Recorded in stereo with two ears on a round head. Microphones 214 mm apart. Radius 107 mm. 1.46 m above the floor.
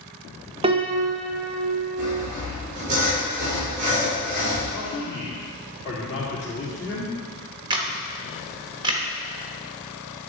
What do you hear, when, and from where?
0.6 s a piano: 25° right (ahead or behind), 0.7 m
2.0 s sawing: 30° right (ahead or behind), 3.5 m
4.7 s a man speaking: 50° left (ahead or behind), 3 m
7.7 s a camera shutter: 20° right (ahead or behind), 1.0 m